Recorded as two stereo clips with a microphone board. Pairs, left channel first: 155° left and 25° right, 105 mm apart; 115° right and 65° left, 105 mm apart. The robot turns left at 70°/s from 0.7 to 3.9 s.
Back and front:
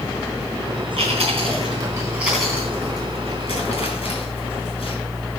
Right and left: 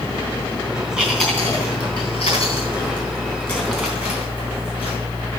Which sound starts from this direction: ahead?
Chewing, at 1.0 s.